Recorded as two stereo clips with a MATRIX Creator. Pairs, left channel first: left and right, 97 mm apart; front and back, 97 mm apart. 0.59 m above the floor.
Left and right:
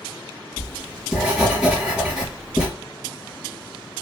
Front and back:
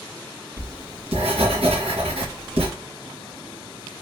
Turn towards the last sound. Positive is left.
turn(degrees=-170)